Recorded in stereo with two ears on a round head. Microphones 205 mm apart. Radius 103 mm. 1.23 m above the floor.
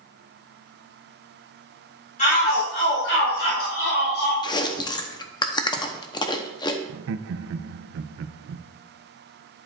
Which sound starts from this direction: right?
Laughter, at 6.9 s.